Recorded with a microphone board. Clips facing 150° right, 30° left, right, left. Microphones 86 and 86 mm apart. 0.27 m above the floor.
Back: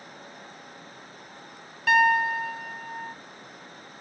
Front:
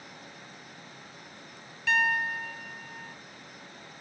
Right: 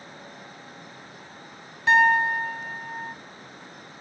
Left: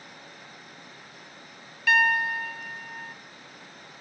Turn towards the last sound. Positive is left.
turn(degrees=-145)